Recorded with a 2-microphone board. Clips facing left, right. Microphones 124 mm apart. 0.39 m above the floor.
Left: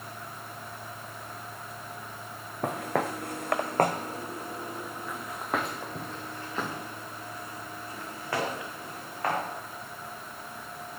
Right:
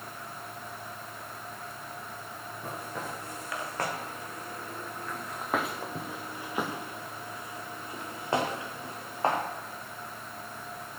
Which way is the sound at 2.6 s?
75° left (ahead or behind).